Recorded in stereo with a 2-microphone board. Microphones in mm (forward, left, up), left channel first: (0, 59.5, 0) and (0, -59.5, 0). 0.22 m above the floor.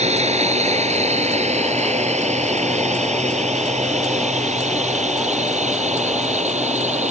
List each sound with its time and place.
0.0 s a drone: 70° right (ahead or behind); by 7.1 s 75° right (ahead or behind)